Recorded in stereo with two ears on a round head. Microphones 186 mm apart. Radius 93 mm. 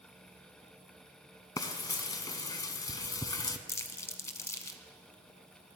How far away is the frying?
About 0.8 m.